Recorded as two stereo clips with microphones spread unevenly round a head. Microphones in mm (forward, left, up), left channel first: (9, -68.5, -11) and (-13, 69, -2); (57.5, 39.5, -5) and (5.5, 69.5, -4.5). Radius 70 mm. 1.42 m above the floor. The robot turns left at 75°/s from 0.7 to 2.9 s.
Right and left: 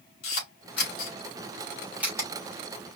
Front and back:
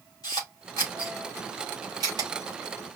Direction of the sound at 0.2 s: 80° right.